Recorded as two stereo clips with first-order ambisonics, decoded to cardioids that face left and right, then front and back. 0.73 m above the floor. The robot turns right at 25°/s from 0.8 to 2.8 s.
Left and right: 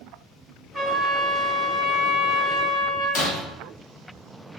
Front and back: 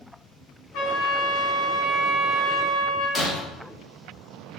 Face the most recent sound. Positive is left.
turn(degrees=80)